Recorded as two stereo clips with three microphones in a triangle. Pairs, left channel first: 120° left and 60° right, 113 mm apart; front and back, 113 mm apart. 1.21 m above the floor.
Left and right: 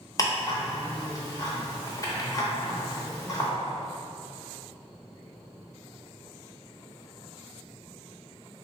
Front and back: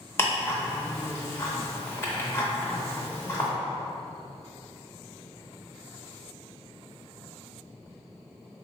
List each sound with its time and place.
0.2 s ticking: 70° left, 0.6 m